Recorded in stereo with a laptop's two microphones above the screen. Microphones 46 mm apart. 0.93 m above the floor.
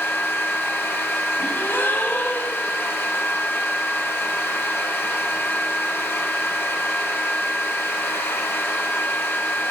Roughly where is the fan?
Left.